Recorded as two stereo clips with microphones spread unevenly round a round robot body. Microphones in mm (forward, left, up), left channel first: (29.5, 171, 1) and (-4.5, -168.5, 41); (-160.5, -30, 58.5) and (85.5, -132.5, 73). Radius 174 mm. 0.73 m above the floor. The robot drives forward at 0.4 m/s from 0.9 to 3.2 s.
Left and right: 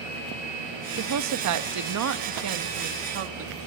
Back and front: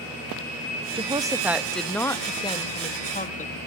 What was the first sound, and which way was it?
A woman speaking, 85° right.